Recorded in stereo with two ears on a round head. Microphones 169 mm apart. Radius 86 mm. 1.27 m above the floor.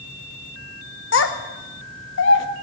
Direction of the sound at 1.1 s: 65° left (ahead or behind).